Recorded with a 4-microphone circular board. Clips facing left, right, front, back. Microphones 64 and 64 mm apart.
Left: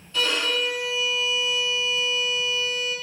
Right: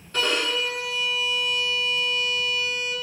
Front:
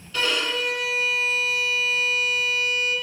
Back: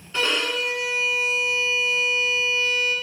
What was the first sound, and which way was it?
A violin, 120° right.